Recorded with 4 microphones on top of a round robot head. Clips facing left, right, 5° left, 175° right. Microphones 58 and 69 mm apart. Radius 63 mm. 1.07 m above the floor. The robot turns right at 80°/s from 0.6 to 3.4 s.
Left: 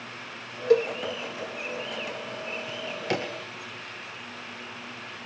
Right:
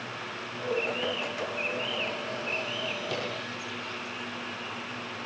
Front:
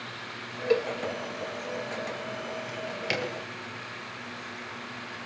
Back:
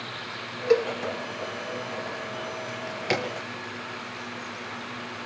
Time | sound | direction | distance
0.7 | a cowbell | 110° left | 1.0 m
2.7 | a drawer | 90° left | 6 m